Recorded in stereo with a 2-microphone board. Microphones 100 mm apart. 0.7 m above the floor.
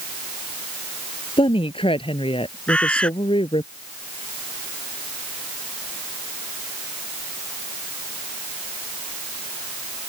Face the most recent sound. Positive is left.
turn(degrees=10)  # may be behind; listen again after turning